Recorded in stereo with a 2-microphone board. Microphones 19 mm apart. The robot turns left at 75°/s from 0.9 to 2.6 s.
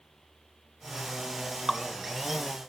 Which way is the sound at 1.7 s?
5° left (ahead or behind).